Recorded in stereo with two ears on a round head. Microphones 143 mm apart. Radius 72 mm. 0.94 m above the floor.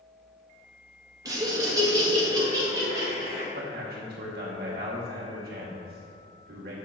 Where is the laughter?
25° right (ahead or behind), 1.1 m.